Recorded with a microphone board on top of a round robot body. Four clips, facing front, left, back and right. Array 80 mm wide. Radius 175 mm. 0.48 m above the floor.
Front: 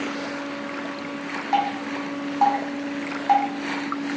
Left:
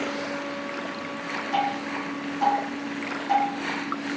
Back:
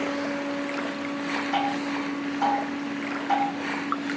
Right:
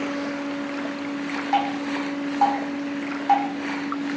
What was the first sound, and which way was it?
Dripping, 40° right.